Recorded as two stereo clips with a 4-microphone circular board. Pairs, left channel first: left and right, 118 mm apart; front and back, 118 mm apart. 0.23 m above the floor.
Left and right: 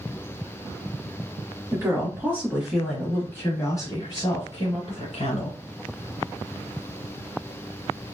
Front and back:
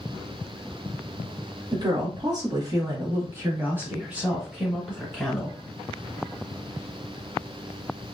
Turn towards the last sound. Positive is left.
turn(degrees=85)